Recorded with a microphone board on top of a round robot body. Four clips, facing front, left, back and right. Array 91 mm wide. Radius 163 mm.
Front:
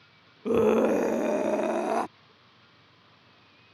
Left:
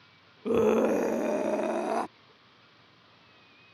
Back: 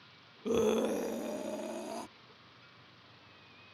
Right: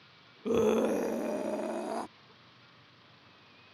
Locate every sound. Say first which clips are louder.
0.5 s a scream: left 3 dB, front 8 dB; 25° left; by 2.1 s 30° left